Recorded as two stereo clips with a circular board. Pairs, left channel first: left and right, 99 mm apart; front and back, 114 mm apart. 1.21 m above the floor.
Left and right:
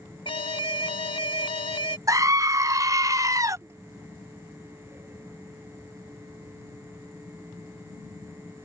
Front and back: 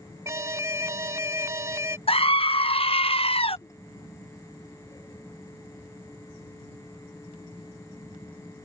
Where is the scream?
35° right.